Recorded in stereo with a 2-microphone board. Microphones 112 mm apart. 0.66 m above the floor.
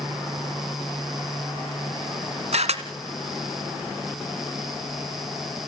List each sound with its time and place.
2.5 s a camera shutter: 80° right, 1.9 m